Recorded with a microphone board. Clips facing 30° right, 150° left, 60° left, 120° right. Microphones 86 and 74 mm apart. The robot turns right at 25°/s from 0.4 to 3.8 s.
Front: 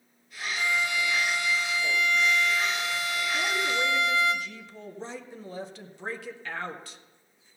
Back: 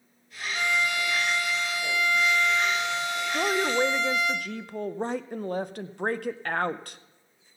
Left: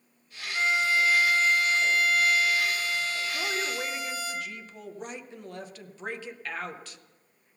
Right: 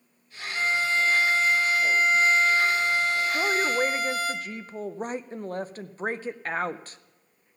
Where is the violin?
130° left, 2.0 m; by 4.3 s 145° right, 2.0 m.